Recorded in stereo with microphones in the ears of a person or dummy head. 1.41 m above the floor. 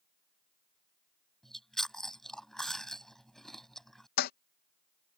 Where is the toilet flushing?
50° left (ahead or behind).